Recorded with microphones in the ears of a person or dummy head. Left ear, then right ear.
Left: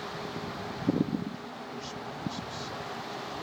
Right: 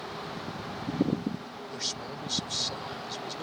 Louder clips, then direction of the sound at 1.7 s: Right 7 dB; 45° right (ahead or behind).